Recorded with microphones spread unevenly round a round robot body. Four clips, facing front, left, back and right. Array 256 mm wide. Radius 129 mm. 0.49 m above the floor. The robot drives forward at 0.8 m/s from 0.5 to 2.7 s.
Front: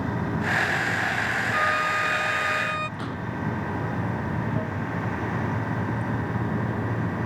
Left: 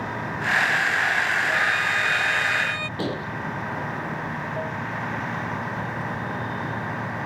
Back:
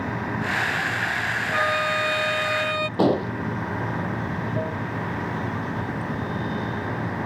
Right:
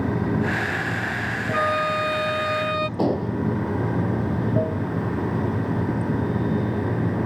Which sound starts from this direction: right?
Running water, at 0.0 s.